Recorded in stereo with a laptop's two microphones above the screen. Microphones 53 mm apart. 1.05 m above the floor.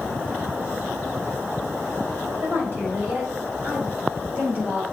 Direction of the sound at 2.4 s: 45° right (ahead or behind).